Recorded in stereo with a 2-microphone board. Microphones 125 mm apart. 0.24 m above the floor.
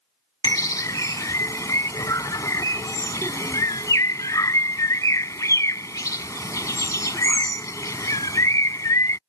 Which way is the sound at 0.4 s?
25° left (ahead or behind).